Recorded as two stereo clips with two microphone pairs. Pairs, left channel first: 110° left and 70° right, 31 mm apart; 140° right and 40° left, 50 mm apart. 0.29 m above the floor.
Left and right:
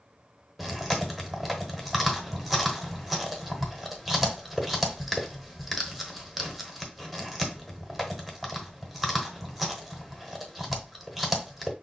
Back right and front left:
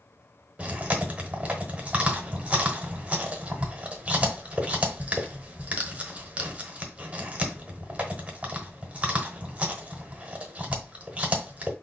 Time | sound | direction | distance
0.6 | chewing | 15° left | 1.2 m